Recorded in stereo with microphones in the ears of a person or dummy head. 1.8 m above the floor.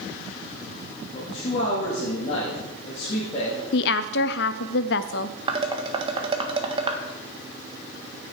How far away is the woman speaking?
About 0.6 m.